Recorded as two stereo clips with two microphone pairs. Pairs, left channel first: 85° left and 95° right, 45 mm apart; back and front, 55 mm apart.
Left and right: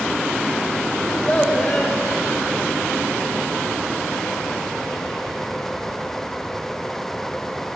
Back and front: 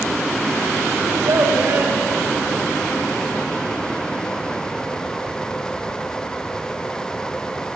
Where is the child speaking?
20° left, 9 m.